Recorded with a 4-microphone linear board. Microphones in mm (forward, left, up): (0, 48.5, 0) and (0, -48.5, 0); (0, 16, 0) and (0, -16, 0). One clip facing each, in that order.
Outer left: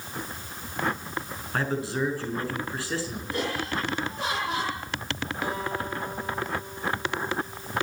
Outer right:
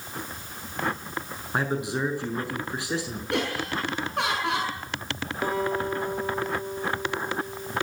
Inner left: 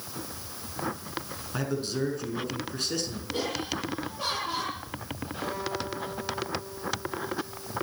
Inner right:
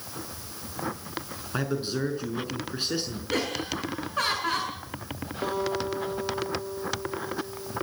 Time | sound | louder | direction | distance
1.5 | a man speaking | outer right 1 dB, inner right 1 dB | 20° right (ahead or behind) | 5.5 m
3.3 | laughter | outer right 2 dB, inner right 3 dB | 75° right (ahead or behind) | 8 m
5.4 | a guitar | outer right 5 dB, inner right 5 dB | 40° right (ahead or behind) | 9 m